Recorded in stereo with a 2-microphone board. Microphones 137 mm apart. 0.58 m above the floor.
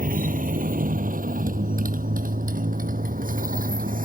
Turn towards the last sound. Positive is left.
turn(degrees=-85)